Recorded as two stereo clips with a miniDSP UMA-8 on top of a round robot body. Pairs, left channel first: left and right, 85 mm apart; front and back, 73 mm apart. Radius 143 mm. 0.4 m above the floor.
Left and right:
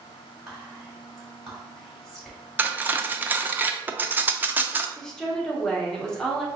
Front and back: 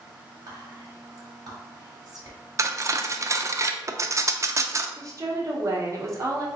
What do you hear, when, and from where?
0.5 s whispering: 175° right, 1.5 m
2.6 s cutlery clinking: 150° right, 0.5 m
5.0 s a woman speaking: 170° left, 1.2 m